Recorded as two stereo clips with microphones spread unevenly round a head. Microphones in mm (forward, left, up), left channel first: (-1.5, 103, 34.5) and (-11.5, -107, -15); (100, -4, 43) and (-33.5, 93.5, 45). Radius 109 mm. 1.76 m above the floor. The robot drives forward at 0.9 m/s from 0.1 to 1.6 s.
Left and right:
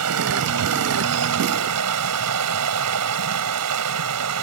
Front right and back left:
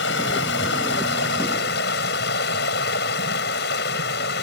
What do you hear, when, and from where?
0.0 s running water: 70° right; by 4.4 s 75° right